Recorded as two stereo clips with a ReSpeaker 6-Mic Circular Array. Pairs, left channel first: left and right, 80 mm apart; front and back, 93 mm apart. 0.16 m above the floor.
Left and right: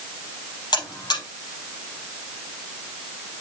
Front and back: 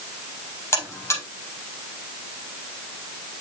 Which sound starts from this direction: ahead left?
A buzzer, at 0.7 s.